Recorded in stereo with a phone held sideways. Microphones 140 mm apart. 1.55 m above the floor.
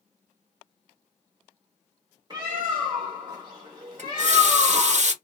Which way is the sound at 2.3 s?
30° right (ahead or behind).